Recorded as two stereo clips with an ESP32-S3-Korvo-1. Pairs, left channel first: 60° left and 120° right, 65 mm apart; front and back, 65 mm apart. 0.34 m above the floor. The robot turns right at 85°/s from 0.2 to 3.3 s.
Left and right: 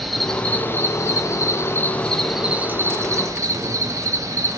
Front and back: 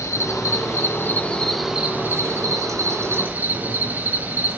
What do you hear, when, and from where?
0.0 s an insect: 30° right, 0.9 m; by 4.6 s 125° right, 0.9 m